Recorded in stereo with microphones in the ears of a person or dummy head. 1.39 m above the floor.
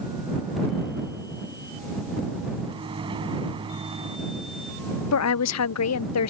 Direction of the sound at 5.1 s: 70° left (ahead or behind).